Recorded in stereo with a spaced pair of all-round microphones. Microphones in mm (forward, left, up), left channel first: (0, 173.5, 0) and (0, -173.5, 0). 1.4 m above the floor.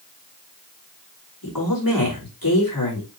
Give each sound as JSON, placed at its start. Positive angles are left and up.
{"t": 1.4, "sound": "a woman speaking", "side_deg": 75, "distance_m": 5.0}